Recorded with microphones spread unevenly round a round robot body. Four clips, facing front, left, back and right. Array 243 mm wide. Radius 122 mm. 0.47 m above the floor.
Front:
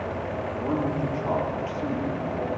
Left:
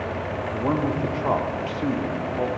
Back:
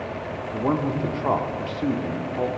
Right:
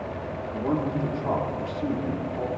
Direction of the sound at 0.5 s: 155° left.